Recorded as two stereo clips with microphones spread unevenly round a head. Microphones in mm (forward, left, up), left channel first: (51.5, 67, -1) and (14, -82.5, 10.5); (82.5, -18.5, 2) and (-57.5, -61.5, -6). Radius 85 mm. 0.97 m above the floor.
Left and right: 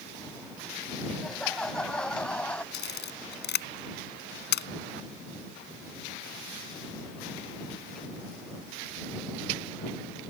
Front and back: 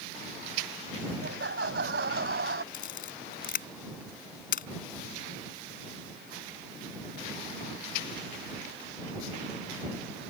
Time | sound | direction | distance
1.2 | laughter | 165° left | ?
2.7 | a camera shutter | 60° left | ?